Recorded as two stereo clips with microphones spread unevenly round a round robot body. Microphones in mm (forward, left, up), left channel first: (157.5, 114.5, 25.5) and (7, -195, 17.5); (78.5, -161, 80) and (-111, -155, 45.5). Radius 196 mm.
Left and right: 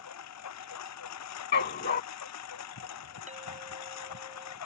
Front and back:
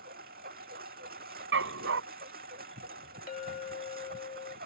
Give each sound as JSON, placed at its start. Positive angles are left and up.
{"t": 0.0, "sound": "a lawn mower", "azimuth_deg": 115}
{"t": 1.5, "sound": "a dog barking", "azimuth_deg": 130}
{"t": 3.3, "sound": "a clink", "azimuth_deg": -45}